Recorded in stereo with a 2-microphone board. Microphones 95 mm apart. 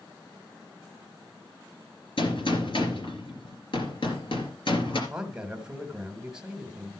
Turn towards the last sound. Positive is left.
turn(degrees=-10)  # may be behind; listen again after turning